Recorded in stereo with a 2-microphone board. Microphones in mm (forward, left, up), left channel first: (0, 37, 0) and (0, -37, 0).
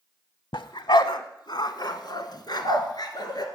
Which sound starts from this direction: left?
A dog barking, at 0.5 s.